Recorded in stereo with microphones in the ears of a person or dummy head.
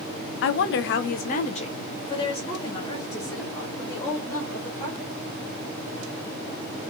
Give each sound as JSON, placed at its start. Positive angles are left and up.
{"t": 0.4, "sound": "a woman speaking", "side_deg": 65, "distance_m": 0.6}